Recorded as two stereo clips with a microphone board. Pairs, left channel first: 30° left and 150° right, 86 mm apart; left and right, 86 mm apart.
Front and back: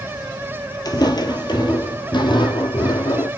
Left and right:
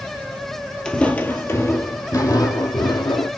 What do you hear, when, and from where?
0.8 s footsteps: 10° left, 1.1 m; by 3.3 s 60° left, 2 m